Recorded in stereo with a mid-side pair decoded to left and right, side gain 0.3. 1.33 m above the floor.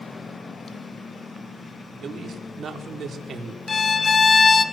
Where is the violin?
50° left, 1.3 m.